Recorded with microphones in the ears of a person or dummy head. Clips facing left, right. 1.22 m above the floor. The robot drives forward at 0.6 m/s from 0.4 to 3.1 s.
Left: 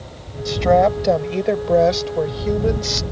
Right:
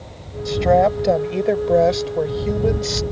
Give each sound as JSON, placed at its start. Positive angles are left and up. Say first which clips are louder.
{"t": 0.5, "sound": "a woman speaking", "louder": "even", "side_deg": -5}